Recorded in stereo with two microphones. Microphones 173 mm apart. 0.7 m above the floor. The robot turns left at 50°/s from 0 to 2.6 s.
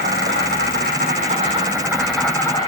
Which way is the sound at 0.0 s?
75° right.